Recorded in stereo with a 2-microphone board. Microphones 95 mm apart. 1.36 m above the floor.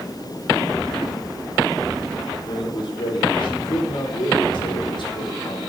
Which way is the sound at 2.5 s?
60° left (ahead or behind).